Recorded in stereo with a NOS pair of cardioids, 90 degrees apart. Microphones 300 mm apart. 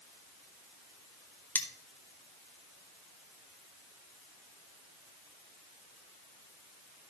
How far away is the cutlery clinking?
About 1.6 m.